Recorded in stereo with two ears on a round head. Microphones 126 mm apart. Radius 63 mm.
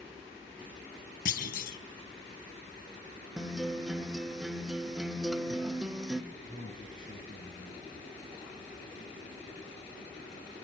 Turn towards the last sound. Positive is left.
turn(degrees=40)  # may be behind; listen again after turning